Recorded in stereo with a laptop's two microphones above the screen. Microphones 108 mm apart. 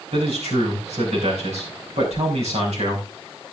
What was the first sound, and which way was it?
A man speaking, 85° right.